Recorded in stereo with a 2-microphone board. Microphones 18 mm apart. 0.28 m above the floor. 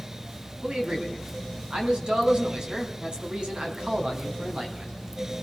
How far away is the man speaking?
About 3 m.